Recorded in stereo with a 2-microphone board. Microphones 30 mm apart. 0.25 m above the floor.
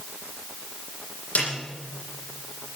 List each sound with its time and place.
1.4 s a snare drum: 75° left (ahead or behind), 8.5 m